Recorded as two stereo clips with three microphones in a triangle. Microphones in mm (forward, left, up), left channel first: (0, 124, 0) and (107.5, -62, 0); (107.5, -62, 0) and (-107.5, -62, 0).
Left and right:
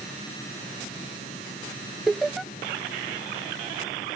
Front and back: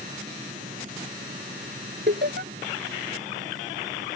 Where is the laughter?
150° right.